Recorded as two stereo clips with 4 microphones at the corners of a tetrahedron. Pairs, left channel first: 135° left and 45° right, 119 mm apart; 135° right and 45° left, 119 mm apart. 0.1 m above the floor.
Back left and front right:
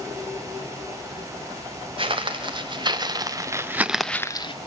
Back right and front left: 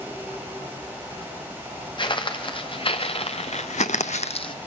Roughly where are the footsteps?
Right.